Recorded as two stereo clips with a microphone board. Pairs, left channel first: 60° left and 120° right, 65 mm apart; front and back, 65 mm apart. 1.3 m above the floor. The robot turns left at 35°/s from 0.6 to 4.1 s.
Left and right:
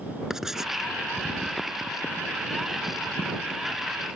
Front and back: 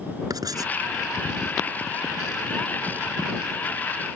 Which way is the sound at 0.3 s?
155° left.